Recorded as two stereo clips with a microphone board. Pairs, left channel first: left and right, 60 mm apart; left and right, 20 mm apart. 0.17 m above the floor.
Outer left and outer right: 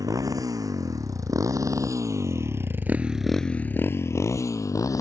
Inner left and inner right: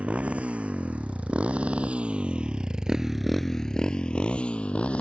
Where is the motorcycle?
80° right; by 5.0 s 70° left (ahead or behind).